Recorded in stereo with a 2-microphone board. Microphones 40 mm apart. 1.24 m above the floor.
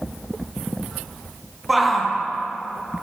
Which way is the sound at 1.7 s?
5° right (ahead or behind).